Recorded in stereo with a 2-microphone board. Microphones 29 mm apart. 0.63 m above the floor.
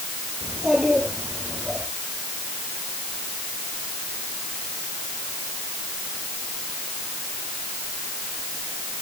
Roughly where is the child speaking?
Right.